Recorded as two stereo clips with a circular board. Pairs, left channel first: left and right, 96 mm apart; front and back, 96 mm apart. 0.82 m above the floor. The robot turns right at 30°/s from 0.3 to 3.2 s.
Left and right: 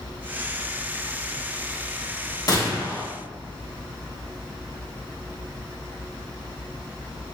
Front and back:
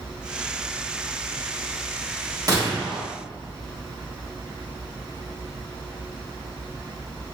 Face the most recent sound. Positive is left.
turn(degrees=155)